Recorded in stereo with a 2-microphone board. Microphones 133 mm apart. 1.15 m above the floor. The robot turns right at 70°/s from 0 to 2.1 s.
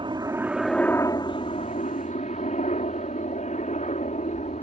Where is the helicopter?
45° right; by 4.6 s 100° left.